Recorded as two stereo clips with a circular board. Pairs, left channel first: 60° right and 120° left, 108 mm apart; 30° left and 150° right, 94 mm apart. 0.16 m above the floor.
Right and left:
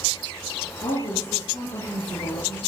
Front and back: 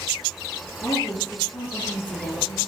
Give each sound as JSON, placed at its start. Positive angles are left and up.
{"t": 0.8, "sound": "a woman speaking", "azimuth_deg": -25, "distance_m": 2.5}